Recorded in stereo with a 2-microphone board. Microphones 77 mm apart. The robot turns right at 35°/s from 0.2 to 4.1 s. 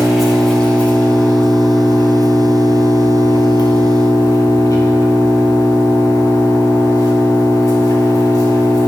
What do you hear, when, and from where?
0.0 s an engine running: 5° right, 1.9 m; by 8.9 s 135° left, 1.9 m